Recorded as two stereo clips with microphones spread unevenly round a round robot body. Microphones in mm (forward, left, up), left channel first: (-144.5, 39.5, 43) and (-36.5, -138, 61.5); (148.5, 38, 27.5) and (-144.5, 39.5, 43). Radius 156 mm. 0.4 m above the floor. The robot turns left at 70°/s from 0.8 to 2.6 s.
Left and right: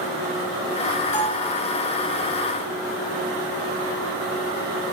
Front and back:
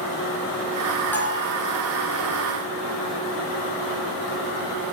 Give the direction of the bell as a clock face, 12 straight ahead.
9 o'clock.